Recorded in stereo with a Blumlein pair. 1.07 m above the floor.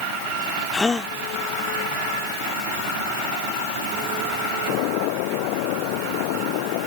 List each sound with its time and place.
0.7 s a gasp: 10° left